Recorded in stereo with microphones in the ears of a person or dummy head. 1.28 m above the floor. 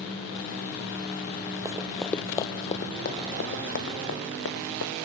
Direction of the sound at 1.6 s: 15° right (ahead or behind).